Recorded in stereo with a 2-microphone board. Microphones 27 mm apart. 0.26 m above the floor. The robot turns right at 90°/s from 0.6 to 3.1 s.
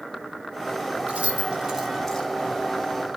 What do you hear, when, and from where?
1.1 s keys jangling: 60° right (ahead or behind), 1.7 m; by 2.3 s 25° left (ahead or behind), 1.7 m